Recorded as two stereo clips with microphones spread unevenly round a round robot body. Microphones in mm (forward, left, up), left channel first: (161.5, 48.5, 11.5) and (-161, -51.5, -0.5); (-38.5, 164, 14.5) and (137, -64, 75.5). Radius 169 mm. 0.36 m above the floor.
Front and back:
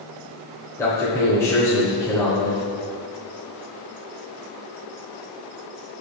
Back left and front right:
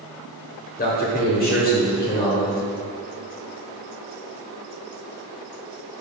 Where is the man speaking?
100° left, 1.1 m.